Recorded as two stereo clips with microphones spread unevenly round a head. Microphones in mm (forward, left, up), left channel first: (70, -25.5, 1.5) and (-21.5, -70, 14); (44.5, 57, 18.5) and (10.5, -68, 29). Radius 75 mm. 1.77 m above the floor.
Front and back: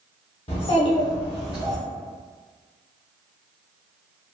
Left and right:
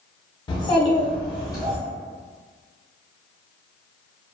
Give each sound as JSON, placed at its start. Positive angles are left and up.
{"t": 0.5, "sound": "a child speaking", "azimuth_deg": 20, "distance_m": 0.9}